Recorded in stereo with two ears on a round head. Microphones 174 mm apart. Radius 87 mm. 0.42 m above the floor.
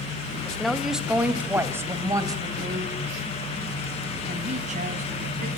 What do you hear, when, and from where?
0.5 s a woman speaking: 5° left (ahead or behind), 2 m; by 5.5 s 45° right (ahead or behind), 3.5 m